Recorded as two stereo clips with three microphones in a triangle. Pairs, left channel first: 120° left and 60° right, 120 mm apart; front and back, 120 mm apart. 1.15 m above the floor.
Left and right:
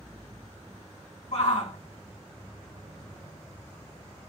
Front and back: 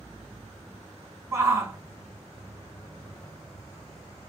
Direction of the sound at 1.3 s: 115° left.